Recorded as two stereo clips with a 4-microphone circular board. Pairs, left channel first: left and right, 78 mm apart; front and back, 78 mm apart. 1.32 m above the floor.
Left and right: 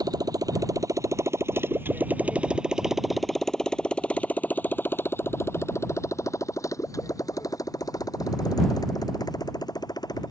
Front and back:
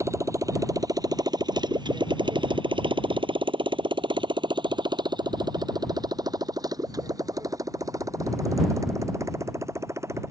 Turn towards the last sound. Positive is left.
turn(degrees=125)